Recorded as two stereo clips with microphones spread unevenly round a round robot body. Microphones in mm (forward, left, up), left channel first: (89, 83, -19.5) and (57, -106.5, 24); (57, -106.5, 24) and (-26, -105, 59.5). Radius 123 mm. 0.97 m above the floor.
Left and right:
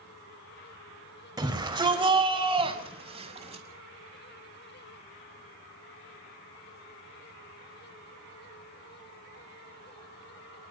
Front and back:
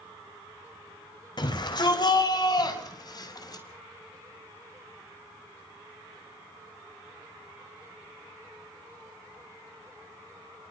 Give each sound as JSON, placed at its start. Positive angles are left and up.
{"t": 1.4, "sound": "a shout", "azimuth_deg": -30, "distance_m": 4.5}